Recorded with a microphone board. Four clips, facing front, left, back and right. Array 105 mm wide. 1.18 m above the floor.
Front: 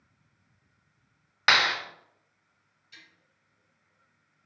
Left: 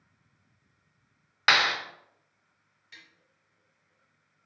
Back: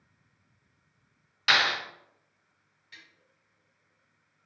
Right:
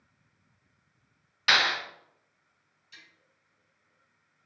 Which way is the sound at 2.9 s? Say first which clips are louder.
Left 1 dB, back 1 dB; 130° left.